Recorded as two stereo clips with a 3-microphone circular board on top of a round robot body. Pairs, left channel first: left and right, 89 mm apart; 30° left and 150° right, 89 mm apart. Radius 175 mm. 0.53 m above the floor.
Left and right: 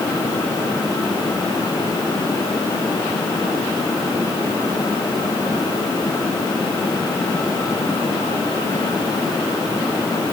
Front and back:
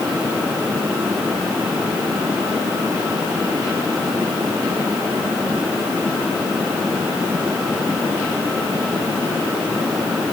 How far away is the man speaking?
I don't hear a man speaking.